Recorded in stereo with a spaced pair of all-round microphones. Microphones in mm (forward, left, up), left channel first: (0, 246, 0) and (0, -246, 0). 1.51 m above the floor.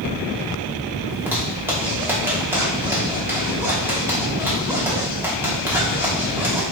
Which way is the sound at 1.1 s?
5° right (ahead or behind).